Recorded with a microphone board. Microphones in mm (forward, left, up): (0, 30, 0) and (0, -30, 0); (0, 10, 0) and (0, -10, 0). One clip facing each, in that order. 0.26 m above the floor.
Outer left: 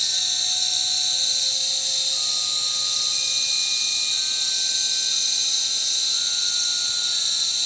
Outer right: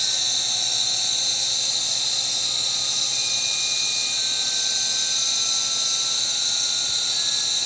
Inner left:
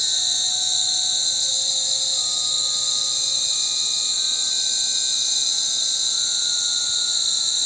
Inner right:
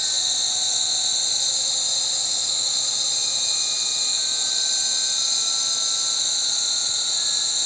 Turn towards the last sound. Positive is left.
turn(degrees=50)  # may be behind; listen again after turning